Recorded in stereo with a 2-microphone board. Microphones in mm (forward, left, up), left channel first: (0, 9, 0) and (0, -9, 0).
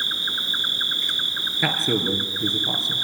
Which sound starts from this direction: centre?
An insect, at 0.0 s.